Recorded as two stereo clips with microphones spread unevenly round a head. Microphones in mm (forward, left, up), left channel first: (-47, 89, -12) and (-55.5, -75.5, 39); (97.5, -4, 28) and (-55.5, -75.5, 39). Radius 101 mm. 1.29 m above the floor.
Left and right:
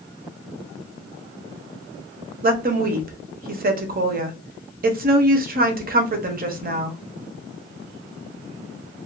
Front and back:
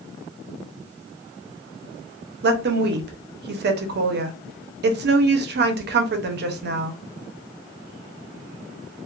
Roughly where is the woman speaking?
Behind right.